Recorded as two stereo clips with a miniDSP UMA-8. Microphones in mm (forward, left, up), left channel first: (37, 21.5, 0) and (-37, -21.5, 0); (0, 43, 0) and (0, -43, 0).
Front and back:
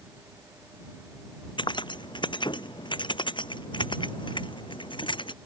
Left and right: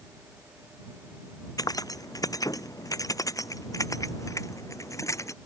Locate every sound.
1.6 s keys jangling: 50° left; by 5.3 s 40° left